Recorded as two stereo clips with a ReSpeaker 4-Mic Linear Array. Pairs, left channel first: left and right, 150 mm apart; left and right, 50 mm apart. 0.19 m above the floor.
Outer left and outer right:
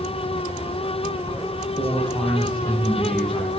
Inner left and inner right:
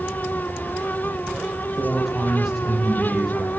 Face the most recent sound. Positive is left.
turn(degrees=5)  # may be behind; listen again after turning